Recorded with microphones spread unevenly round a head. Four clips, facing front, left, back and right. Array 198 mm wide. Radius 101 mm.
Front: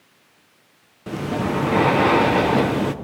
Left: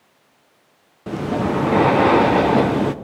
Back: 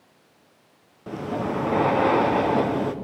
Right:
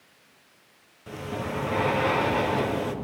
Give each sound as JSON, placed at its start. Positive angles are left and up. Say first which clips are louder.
{"t": 1.1, "sound": "breathing", "louder": "left 11 dB, front 3 dB", "azimuth_deg": 60, "distance_m": 0.8}